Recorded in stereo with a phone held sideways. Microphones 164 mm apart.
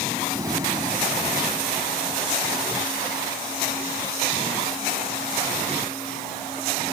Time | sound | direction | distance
0.3 | breathing | 20° right (ahead or behind) | ?